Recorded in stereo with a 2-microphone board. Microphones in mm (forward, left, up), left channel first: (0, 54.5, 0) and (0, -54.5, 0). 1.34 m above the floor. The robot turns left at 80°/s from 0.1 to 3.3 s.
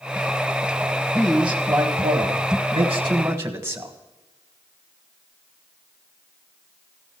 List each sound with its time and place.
1.2 s a man speaking: 15° left, 1.3 m; by 4.0 s 155° right, 1.3 m